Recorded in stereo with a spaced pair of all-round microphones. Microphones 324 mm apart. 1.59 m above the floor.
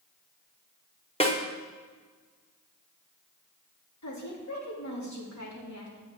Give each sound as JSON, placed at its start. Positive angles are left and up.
{"t": 1.2, "sound": "a snare drum", "side_deg": 20, "distance_m": 1.2}
{"t": 4.0, "sound": "a woman speaking", "side_deg": 60, "distance_m": 2.5}